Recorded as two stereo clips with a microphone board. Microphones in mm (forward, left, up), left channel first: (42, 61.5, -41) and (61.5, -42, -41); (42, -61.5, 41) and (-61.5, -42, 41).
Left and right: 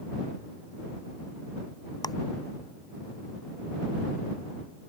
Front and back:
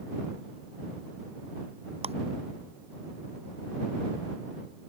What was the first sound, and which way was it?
Ticking, 155° left.